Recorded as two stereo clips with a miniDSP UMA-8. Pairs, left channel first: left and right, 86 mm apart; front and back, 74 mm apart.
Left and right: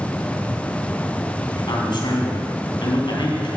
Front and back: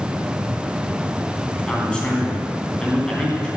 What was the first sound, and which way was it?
A man speaking, 75° left.